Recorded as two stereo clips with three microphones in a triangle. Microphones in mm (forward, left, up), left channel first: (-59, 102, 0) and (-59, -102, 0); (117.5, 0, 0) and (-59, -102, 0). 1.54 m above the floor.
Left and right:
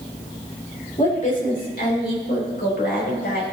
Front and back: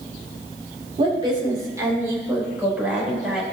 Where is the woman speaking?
145° left, 2 m; by 3.4 s 125° left, 3.5 m.